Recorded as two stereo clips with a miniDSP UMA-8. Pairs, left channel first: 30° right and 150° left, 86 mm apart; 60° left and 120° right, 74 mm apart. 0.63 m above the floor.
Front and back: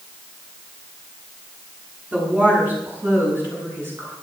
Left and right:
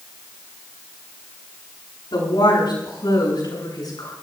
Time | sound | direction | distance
2.1 | a woman speaking | 75° left | 8 m